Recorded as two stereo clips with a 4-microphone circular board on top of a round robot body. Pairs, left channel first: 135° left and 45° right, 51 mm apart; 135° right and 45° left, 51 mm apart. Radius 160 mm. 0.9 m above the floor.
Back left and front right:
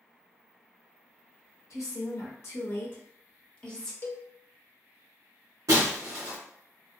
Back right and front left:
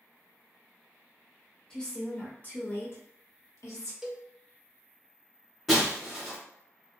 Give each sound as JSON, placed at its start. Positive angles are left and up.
{"t": 1.7, "sound": "a woman speaking", "azimuth_deg": 150, "distance_m": 1.1}
{"t": 4.0, "sound": "a cowbell", "azimuth_deg": 130, "distance_m": 0.7}
{"t": 5.7, "sound": "breaking glass", "azimuth_deg": -50, "distance_m": 0.9}